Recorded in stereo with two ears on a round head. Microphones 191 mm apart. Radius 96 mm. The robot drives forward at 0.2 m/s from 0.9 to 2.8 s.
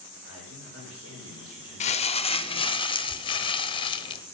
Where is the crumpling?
30° left (ahead or behind), 0.6 m; by 4.2 s 25° left (ahead or behind), 0.8 m.